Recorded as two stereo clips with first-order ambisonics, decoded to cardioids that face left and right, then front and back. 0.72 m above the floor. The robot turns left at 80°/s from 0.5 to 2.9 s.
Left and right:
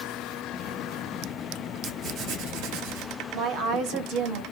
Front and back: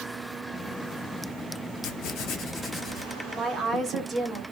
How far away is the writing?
About 0.8 m.